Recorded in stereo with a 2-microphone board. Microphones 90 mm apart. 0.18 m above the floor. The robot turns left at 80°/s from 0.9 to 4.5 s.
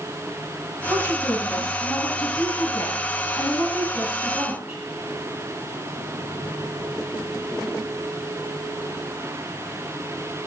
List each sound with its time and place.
0.9 s a woman speaking: 125° right, 1.9 m; by 4.8 s 55° right, 1.9 m